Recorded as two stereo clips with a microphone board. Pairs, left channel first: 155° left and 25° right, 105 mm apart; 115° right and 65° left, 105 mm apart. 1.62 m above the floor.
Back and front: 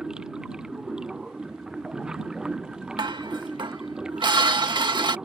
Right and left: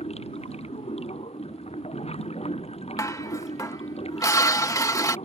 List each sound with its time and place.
0.0 s running water: 105° right
3.0 s dishes clattering: 60° right